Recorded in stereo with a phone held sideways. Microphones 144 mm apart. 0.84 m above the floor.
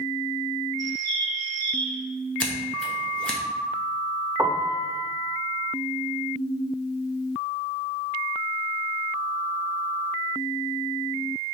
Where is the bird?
60° left (ahead or behind), 1.6 m.